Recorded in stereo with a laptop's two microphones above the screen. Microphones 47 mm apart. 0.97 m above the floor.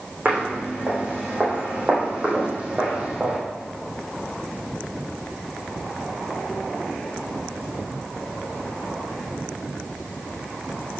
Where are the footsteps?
30° right (ahead or behind), 4 m; by 3.4 s 25° right (ahead or behind), 2.5 m.